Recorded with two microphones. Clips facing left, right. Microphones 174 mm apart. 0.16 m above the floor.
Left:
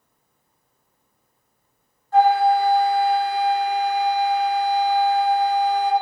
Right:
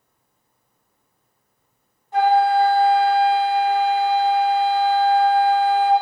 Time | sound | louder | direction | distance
2.1 | a flute | even | 20° right (ahead or behind) | 1.1 m